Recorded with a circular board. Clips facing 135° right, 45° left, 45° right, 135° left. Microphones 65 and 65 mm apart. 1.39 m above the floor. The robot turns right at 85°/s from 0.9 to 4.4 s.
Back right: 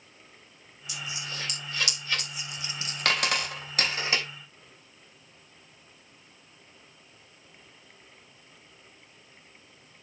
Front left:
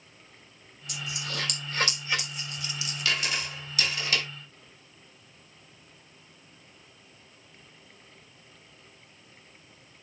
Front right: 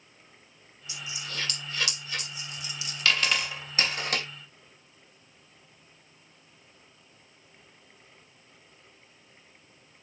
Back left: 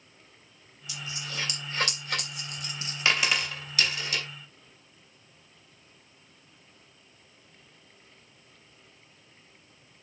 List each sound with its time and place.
0.9 s a dropped coin: 15° left, 3 m; by 4.3 s 60° right, 3 m